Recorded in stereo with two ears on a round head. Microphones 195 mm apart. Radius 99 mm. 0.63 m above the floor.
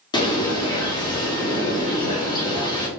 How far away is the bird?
About 1.2 m.